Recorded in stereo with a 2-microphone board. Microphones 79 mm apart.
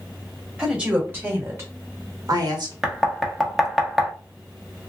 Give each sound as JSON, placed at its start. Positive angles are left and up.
{"t": 0.6, "sound": "a woman speaking", "side_deg": -15, "distance_m": 2.0}
{"t": 2.8, "sound": "knocking", "side_deg": -5, "distance_m": 0.9}